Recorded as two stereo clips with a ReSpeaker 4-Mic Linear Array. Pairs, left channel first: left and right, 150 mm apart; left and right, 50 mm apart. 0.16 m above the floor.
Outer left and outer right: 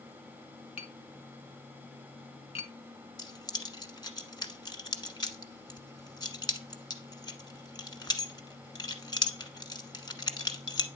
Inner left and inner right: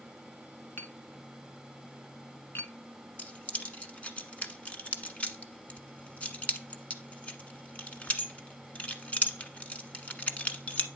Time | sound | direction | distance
0.8 | tapping | 45° left (ahead or behind) | 1.1 m
3.2 | keys jangling | 30° left (ahead or behind) | 1.1 m